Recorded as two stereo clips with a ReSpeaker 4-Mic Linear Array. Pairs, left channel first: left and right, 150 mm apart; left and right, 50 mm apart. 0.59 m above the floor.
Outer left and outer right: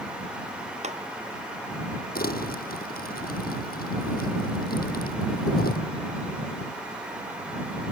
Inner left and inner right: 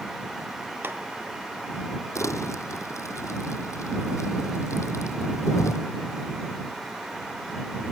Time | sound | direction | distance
0.8 | a clap | 50° right (ahead or behind) | ?
2.1 | crumpling | 85° left | ?